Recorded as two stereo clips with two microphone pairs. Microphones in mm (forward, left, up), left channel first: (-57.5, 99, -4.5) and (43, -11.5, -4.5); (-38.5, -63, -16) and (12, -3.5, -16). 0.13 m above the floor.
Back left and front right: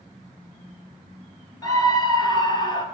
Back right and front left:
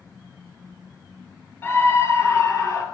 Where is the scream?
175° right, 1.7 m; by 2.9 s 170° right, 2.5 m.